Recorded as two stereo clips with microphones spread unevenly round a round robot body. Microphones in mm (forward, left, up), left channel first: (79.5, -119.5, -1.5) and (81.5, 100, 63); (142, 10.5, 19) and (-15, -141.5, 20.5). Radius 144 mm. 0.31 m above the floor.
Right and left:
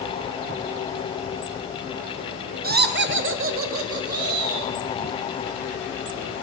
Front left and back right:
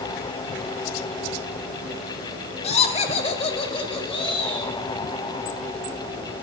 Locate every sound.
2.6 s laughter: 55° left, 0.9 m; by 4.7 s 110° left, 1.5 m